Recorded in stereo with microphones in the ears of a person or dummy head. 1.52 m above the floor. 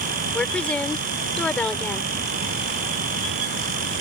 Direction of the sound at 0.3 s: 10° left (ahead or behind).